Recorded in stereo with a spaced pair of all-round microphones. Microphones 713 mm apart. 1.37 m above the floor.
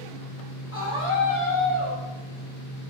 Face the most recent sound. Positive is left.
turn(degrees=40)  # may be behind; listen again after turning